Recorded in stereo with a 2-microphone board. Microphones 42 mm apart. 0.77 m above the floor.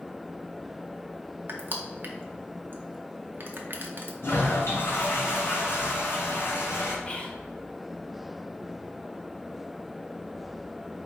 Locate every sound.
1.5 s crushing: 50° right (ahead or behind), 0.6 m
4.2 s a toilet flushing: 75° left (ahead or behind), 1.4 m
7.0 s whispering: 25° left (ahead or behind), 0.7 m